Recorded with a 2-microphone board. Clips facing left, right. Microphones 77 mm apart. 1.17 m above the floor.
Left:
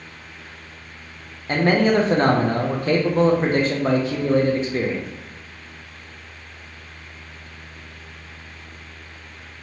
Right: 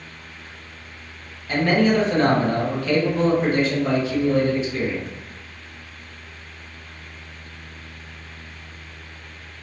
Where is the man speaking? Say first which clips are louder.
Left 1 dB; 40° left (ahead or behind), 0.5 m.